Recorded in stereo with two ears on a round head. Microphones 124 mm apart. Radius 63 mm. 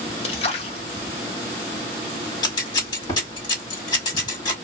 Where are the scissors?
30° left (ahead or behind), 1.8 m.